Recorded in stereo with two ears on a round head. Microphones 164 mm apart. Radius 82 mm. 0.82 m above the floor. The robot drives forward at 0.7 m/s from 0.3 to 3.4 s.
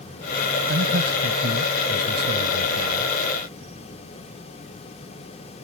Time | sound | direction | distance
0.7 | a man speaking | 65° right (ahead or behind) | ?